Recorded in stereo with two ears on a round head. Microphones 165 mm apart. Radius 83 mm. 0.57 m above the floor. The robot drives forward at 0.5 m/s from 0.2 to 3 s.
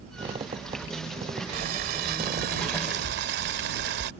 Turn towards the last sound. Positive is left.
turn(degrees=-60)  # may be behind; listen again after turning